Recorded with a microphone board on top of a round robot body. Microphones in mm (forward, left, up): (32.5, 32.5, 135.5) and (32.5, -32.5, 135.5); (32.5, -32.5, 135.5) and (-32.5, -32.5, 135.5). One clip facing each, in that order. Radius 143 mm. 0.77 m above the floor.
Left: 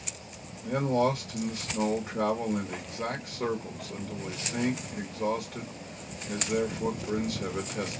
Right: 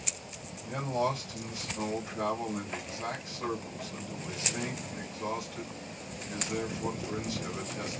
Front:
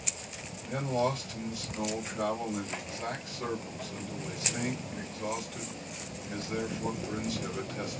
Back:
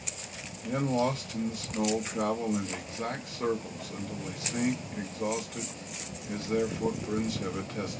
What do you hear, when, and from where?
0.6 s a man speaking: 135° left, 1.7 m